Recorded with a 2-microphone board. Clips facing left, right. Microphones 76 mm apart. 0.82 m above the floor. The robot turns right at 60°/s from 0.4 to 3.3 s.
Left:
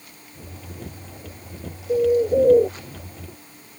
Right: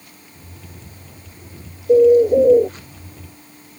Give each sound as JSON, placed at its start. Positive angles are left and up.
{"t": 1.9, "sound": "a bird", "azimuth_deg": -45}